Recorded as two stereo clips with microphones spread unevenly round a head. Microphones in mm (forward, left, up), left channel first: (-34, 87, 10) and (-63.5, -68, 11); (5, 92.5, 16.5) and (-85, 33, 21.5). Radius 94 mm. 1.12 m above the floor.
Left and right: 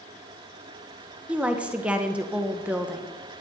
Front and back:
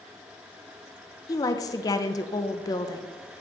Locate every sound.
1.3 s a woman speaking: 20° right, 0.9 m